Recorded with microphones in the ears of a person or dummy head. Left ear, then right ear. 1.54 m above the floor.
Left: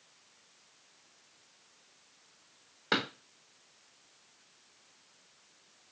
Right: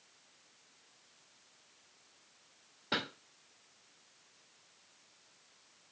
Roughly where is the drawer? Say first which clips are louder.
Left 5 dB; left.